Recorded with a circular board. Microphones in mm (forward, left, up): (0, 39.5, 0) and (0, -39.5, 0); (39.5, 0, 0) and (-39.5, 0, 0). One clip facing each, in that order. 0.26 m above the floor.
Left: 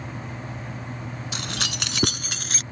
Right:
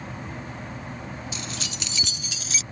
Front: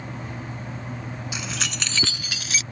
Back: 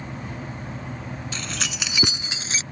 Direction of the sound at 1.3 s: 75° left.